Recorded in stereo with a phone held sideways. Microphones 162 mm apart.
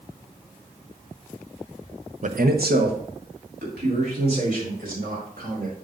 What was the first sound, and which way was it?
A man speaking, 50° right (ahead or behind).